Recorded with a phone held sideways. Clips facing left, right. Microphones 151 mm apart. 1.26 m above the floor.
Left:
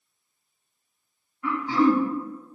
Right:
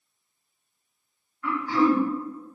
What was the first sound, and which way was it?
Throat clearing, 20° left (ahead or behind).